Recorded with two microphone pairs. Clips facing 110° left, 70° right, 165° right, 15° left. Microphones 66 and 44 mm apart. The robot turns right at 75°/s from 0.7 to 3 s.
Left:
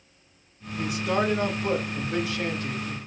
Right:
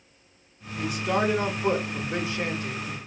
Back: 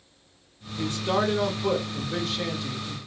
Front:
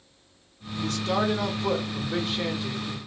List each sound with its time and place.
0.8 s a man speaking: 175° right, 1.5 m; by 3.0 s 10° right, 1.5 m